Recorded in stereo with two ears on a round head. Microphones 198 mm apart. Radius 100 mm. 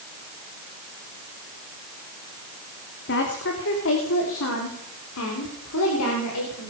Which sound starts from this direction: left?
A woman speaking, at 3.1 s.